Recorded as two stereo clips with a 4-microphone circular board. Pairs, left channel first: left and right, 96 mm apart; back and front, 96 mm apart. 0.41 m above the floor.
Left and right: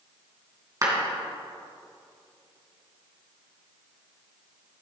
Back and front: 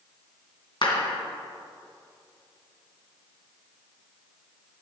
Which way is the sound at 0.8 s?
145° right.